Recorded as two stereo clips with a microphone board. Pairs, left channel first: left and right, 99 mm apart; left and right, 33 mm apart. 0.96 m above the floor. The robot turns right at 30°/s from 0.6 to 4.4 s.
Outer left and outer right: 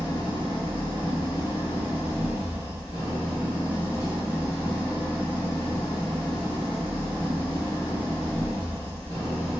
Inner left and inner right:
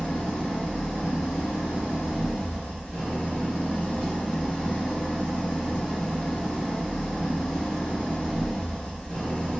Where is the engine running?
45° left, 1.6 m; by 9.6 s 155° left, 1.6 m.